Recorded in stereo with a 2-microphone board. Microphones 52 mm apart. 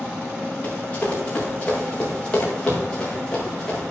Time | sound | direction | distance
0.6 | running footsteps | 25° left (ahead or behind) | 4.5 m